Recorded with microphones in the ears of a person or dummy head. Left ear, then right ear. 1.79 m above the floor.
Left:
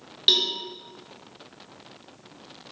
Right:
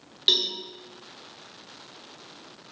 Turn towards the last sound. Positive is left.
turn(degrees=-15)  # may be behind; listen again after turning